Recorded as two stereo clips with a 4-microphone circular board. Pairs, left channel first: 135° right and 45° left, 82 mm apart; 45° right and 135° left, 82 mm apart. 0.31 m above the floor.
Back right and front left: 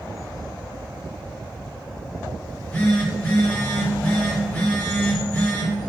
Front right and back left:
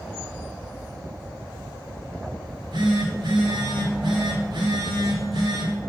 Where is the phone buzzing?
155° left, 2 m.